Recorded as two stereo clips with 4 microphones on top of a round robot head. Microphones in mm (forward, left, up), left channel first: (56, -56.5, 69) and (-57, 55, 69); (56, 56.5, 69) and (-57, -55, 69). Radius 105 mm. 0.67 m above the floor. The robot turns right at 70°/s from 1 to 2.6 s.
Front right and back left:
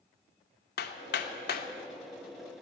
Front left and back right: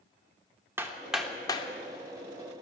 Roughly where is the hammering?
Ahead right.